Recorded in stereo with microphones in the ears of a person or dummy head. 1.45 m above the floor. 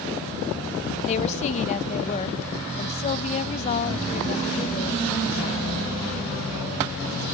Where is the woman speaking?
40° left (ahead or behind), 1.3 m.